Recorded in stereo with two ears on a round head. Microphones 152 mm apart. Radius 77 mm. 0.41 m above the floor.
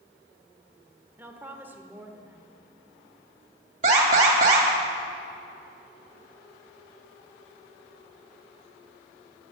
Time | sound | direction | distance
1.2 | a woman speaking | 15° right (ahead or behind) | 1.1 m
3.8 | an alarm | 45° right (ahead or behind) | 2.5 m